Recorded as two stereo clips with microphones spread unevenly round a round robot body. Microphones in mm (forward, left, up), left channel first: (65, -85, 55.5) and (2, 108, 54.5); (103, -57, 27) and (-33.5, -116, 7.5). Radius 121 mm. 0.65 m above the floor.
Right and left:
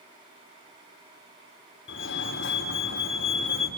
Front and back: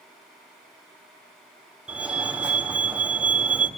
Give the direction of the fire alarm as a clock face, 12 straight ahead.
3 o'clock.